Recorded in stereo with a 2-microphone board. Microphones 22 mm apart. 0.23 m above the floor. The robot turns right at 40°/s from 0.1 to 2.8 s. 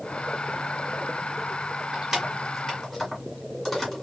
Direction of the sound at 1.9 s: 25° right (ahead or behind).